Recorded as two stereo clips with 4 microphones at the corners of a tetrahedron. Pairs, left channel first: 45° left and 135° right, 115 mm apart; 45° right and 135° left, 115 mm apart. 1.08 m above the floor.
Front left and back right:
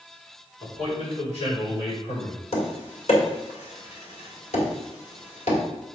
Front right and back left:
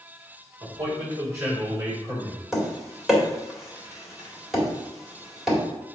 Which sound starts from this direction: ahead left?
Tapping, at 2.5 s.